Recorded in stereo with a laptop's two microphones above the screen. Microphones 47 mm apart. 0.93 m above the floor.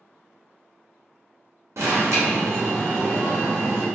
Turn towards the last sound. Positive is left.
turn(degrees=-75)  # may be behind; listen again after turning